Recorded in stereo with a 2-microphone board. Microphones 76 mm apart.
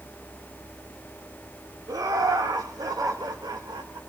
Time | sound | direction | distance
1.9 | laughter | 55° right (ahead or behind) | 2.0 m